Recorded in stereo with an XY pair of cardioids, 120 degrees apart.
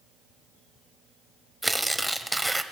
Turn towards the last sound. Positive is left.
turn(degrees=-5)